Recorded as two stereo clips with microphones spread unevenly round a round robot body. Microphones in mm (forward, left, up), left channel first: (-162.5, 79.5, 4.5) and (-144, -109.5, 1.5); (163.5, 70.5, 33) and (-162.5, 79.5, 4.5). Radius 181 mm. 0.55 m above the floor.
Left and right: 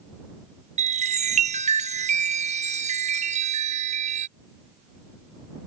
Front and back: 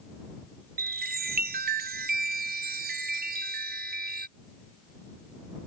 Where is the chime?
130° right.